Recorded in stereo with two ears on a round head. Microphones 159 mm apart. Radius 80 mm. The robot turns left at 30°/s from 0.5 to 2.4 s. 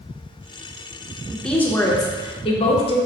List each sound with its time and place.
1.3 s a woman speaking: straight behind, 0.7 m; by 3.0 s 145° left, 0.7 m